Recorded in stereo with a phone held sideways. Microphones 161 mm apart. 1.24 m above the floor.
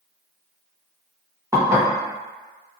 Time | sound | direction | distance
1.5 | dishes clattering | 20° right (ahead or behind) | 0.8 m